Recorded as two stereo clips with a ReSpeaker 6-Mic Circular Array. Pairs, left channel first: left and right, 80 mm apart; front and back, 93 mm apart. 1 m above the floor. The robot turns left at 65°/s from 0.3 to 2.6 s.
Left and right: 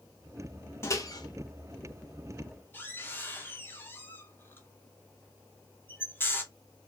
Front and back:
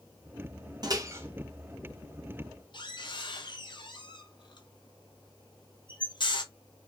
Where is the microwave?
145° left, 0.8 m; by 6.4 s 30° left, 0.8 m.